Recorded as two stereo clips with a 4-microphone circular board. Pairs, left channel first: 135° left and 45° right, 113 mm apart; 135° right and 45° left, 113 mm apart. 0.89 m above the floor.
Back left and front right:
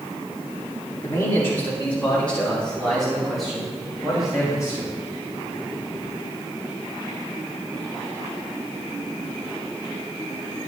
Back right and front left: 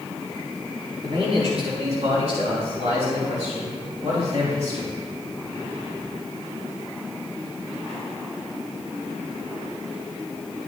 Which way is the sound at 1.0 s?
75° left.